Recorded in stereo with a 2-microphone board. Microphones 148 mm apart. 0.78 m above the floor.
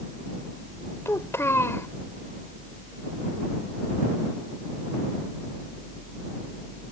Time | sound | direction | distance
1.1 | a child speaking | 20° left (ahead or behind) | ?